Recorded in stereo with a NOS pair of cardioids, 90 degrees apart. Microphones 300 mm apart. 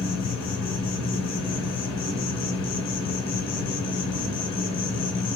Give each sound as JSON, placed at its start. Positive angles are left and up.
{"t": 0.0, "sound": "an insect", "azimuth_deg": 65, "distance_m": 3.0}